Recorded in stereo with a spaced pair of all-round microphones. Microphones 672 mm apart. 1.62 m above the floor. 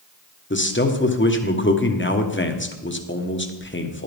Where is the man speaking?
20° left (ahead or behind), 1.0 m.